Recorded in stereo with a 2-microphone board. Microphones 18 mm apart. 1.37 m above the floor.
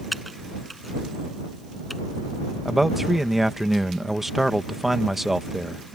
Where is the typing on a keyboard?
Centre (ahead or behind).